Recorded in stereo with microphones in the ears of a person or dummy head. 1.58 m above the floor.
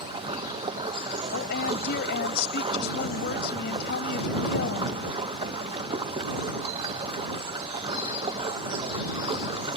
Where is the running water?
25° right (ahead or behind).